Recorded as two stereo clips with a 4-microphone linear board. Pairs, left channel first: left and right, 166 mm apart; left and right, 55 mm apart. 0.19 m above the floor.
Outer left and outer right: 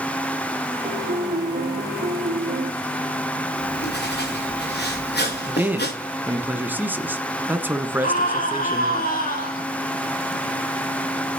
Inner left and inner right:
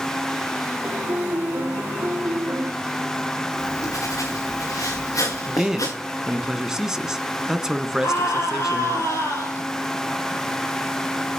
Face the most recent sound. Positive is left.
turn(degrees=50)  # may be behind; listen again after turning